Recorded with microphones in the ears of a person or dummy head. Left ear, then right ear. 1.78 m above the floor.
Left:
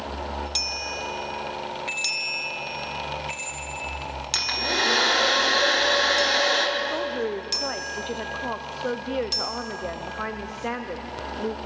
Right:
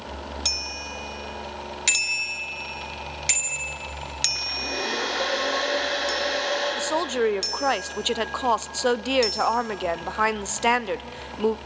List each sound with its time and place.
1.9 s a bicycle bell: 75° right (ahead or behind), 3 m
4.3 s a hair dryer: 75° left (ahead or behind), 8.5 m
6.8 s a woman speaking: 45° right (ahead or behind), 0.6 m